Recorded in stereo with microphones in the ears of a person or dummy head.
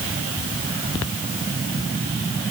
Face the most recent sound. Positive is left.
No sound to turn to.